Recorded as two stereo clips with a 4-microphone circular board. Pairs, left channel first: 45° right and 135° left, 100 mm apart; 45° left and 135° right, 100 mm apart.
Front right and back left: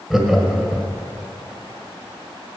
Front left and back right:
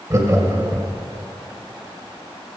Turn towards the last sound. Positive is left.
turn(degrees=-140)